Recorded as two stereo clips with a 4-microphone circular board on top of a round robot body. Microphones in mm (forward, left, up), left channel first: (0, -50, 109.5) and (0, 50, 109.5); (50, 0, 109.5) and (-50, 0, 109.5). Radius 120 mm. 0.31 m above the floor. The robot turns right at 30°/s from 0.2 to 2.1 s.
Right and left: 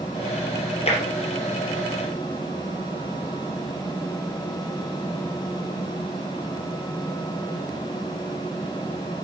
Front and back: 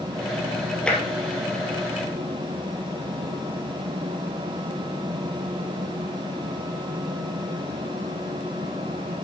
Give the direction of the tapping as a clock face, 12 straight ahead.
3 o'clock.